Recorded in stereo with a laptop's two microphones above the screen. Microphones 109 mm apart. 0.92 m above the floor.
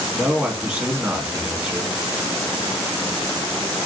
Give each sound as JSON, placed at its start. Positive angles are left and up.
{"t": 0.1, "sound": "a man speaking", "side_deg": -15, "distance_m": 1.4}